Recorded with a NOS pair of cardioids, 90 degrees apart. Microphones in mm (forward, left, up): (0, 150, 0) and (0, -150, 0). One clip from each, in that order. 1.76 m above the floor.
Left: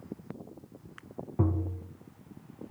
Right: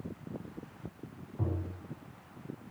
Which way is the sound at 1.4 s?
55° left.